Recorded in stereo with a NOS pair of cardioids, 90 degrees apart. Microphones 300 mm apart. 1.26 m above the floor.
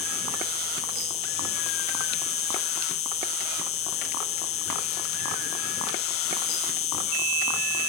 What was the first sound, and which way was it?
An insect, 50° left.